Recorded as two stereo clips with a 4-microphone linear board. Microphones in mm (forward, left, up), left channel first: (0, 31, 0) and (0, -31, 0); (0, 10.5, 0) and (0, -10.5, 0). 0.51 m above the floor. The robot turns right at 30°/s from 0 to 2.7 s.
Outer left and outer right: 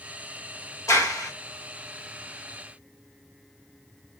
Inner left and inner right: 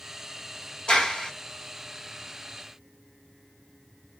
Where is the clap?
60° left (ahead or behind), 2.0 m; by 1.3 s 65° left (ahead or behind), 2.0 m.